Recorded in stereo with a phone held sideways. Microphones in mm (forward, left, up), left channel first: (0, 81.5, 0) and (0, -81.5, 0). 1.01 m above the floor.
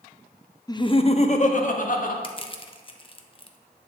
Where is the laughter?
25° left (ahead or behind), 0.9 m; by 2.1 s 55° left (ahead or behind), 2 m.